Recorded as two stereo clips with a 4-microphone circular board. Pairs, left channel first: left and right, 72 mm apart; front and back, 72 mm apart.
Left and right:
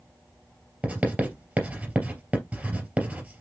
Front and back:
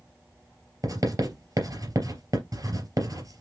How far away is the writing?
About 3 m.